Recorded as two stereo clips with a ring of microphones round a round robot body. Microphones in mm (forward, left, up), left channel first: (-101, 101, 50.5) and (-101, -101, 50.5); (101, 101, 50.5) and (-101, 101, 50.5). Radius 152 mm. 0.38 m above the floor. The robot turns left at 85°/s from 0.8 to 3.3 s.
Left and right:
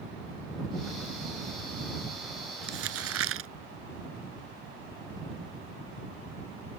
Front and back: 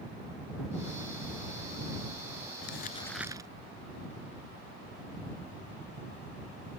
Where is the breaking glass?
No breaking glass in this recording.